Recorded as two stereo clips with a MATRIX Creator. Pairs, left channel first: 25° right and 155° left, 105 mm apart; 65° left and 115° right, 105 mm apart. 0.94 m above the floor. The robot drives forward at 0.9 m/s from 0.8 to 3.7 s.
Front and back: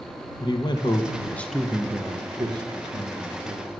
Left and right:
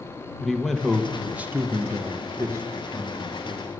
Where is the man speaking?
20° right, 0.9 m; by 3.7 s 175° right, 2 m.